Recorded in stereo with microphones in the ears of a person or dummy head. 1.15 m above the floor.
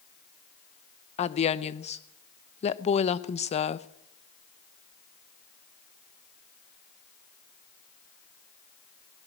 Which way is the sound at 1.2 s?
30° left (ahead or behind).